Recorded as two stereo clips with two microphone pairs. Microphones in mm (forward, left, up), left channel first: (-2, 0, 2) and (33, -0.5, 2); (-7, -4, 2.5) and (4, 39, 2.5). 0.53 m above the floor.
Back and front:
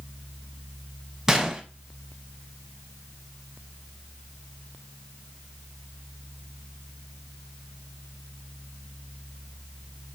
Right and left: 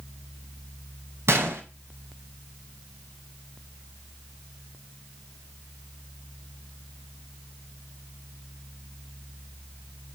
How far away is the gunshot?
About 1.6 m.